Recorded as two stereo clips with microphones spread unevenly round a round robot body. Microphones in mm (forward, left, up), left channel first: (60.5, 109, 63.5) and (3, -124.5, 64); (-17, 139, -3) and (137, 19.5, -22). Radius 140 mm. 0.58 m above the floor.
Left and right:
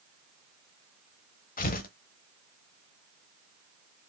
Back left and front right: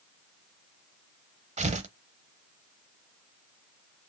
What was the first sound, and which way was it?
Tearing paper, 20° left.